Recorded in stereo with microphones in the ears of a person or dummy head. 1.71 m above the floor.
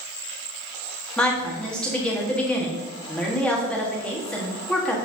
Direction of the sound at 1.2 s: 10° left (ahead or behind).